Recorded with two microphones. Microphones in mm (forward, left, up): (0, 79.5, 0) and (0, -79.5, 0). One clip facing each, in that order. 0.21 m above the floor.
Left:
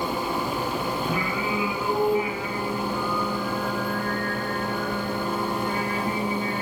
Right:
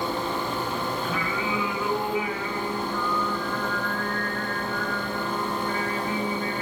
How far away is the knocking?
No knocking in this recording.